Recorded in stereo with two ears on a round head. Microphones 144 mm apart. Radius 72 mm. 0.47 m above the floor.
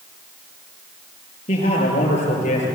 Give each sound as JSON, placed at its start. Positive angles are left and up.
{"t": 1.5, "sound": "a man speaking", "side_deg": 40, "distance_m": 9.0}